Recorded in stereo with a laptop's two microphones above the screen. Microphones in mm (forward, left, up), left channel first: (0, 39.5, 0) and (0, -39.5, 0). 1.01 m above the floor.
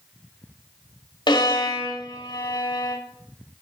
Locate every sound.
1.3 s a violin: 75° left (ahead or behind), 1.8 m